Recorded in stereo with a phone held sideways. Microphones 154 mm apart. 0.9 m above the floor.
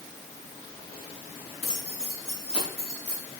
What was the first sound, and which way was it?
Keys jangling, 40° left (ahead or behind).